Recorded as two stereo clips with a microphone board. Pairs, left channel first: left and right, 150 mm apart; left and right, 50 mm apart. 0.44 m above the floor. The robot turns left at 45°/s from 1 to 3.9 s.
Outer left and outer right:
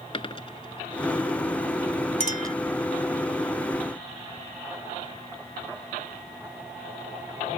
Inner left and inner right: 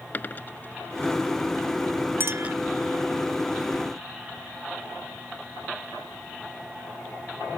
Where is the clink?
50° right (ahead or behind); by 2.5 s 65° right (ahead or behind).